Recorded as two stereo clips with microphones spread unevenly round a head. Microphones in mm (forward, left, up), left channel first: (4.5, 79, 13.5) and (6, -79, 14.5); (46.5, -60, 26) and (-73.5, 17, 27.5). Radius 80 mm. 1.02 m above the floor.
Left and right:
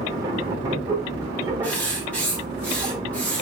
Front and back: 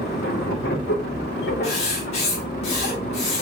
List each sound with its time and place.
0.0 s a machine running: 20° right, 1.3 m
1.6 s writing: 10° left, 1.9 m